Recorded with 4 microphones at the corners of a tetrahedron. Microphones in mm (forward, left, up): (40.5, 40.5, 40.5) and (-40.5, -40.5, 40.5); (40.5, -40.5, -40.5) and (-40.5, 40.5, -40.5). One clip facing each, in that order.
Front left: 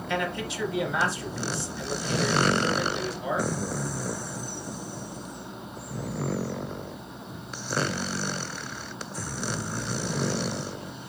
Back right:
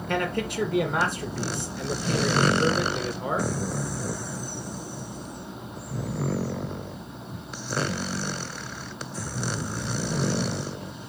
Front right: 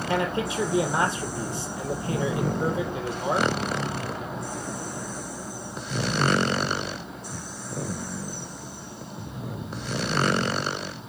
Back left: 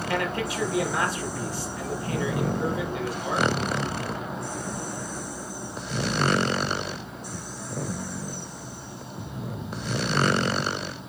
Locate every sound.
0.1 s a man speaking: 105° right, 2.5 m